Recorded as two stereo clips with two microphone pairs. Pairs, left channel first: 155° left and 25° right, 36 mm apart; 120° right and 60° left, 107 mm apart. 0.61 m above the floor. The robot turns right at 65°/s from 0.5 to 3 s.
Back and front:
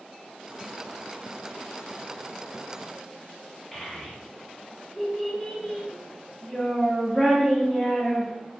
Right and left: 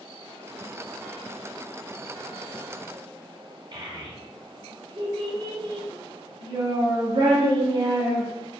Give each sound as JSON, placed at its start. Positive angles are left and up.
{"t": 3.7, "sound": "a child speaking", "azimuth_deg": 80, "distance_m": 0.8}